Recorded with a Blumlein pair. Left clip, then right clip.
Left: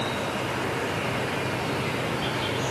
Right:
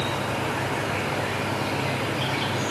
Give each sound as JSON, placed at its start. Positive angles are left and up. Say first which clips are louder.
{"t": 0.0, "sound": "an insect", "louder": "right 1 dB", "azimuth_deg": -35, "distance_m": 3.0}